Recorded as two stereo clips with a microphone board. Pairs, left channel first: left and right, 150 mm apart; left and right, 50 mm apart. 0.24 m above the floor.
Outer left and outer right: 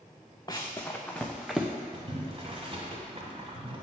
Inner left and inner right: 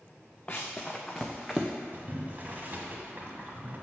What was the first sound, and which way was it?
Running footsteps, 25° left (ahead or behind).